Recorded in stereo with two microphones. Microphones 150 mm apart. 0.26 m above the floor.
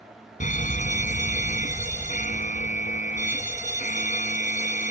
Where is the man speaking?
I don't hear a man speaking.